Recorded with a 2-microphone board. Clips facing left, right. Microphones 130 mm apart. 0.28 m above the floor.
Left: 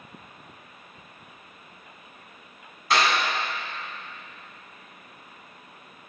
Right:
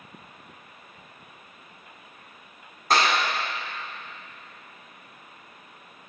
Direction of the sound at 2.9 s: 45° right (ahead or behind).